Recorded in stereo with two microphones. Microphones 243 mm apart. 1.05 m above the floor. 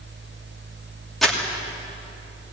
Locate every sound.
1.2 s crumpling: centre (ahead or behind), 2.5 m